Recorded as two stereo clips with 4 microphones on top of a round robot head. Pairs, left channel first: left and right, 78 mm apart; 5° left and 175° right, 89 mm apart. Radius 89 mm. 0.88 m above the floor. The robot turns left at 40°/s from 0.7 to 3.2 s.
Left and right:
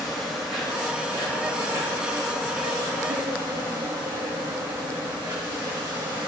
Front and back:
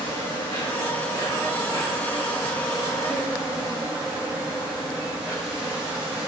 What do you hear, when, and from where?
0.0 s an insect: straight ahead, 2 m; by 6.3 s 100° right, 2 m